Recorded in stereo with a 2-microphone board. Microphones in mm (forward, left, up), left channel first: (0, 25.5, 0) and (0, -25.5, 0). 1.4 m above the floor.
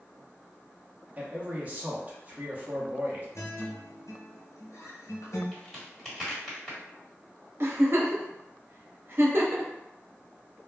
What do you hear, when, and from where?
1.2 s a man speaking: 30° right (ahead or behind), 0.8 m
3.4 s a guitar: 80° left, 0.7 m
5.5 s a crack: 5° left (ahead or behind), 1.6 m
7.6 s a giggle: 50° right (ahead or behind), 0.6 m